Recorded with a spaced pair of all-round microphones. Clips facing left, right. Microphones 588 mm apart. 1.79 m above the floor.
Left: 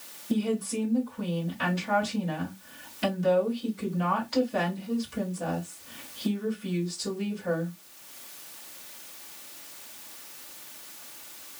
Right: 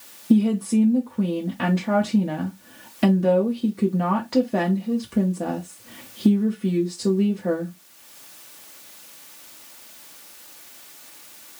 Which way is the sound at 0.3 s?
70° right (ahead or behind).